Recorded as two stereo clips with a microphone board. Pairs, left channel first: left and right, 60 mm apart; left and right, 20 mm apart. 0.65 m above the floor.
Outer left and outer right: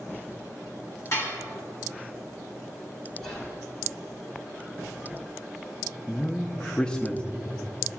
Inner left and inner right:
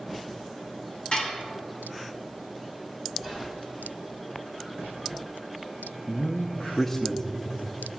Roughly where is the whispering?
Centre.